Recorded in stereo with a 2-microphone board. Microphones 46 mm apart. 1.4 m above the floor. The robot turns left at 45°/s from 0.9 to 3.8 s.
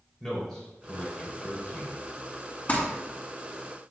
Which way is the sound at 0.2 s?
10° left (ahead or behind).